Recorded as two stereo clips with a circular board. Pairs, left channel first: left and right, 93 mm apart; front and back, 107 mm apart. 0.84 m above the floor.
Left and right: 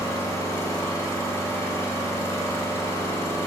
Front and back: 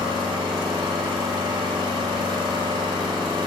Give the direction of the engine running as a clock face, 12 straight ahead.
7 o'clock.